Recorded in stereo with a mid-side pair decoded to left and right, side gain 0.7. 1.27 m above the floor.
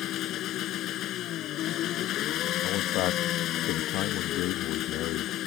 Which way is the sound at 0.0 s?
50° left.